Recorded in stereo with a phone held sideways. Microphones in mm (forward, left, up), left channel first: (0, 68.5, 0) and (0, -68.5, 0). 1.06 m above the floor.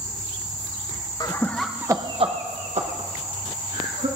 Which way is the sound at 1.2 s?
30° left (ahead or behind).